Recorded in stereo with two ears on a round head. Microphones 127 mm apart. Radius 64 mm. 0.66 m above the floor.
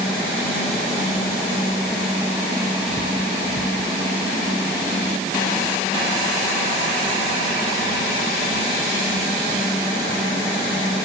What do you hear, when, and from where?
Only background noise.